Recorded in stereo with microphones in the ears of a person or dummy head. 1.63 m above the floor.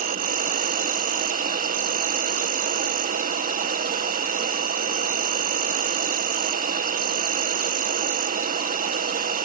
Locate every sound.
0.0 s an insect: 50° right (ahead or behind)